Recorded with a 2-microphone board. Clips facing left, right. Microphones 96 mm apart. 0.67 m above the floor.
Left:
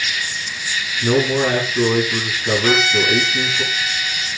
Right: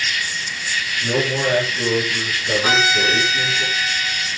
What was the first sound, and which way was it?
An insect, 5° left (ahead or behind).